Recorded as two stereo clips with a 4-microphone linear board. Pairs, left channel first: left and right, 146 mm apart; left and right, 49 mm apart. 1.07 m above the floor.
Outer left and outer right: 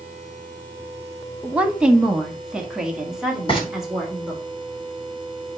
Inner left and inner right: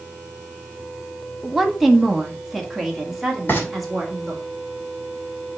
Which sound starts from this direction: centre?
A woman speaking, at 1.4 s.